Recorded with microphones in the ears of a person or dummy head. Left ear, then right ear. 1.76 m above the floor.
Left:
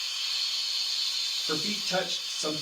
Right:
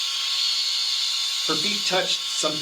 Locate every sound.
0.0 s a machine running: 40° right (ahead or behind), 1.2 m
1.5 s a man speaking: 35° right (ahead or behind), 0.7 m